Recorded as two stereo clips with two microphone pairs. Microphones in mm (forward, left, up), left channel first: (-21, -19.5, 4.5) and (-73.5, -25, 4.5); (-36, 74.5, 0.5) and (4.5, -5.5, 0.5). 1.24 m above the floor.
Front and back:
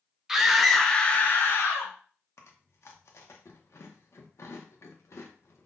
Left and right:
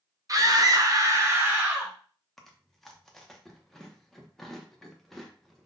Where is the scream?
100° right, 0.7 m; by 1.9 s 10° left, 0.7 m.